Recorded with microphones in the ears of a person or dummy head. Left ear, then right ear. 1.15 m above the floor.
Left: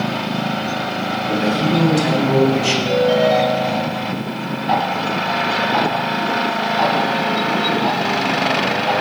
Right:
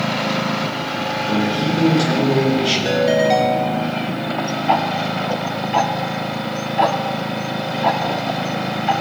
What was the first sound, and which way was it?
A man speaking, 40° left (ahead or behind).